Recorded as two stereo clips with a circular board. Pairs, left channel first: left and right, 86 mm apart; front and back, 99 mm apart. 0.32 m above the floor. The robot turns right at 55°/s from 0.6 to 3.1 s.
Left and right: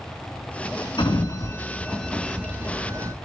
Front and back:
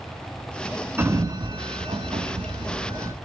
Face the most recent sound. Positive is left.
turn(degrees=-130)